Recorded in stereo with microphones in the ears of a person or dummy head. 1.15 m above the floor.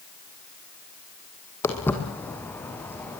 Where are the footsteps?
15° left (ahead or behind), 3.5 m; by 3.2 s 10° left (ahead or behind), 4.5 m.